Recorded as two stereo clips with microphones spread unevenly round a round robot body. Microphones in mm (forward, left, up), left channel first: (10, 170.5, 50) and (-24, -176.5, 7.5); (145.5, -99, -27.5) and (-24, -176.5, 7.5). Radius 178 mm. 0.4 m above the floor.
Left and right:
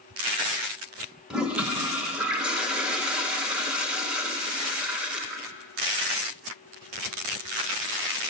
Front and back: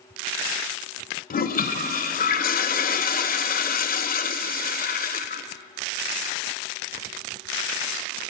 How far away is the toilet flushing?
About 0.6 m.